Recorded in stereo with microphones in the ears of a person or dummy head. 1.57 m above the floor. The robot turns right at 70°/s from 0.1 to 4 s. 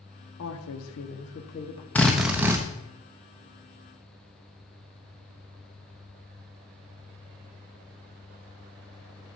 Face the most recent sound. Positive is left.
turn(degrees=-50)